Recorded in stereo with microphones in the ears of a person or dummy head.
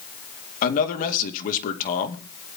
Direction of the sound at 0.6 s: 40° left (ahead or behind).